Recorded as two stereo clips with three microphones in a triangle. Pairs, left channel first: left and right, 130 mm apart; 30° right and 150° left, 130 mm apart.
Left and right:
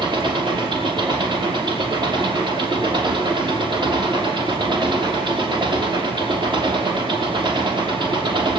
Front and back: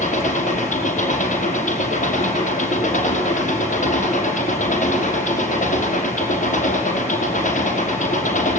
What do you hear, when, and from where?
0.0 s an engine running: 35° right, 5 m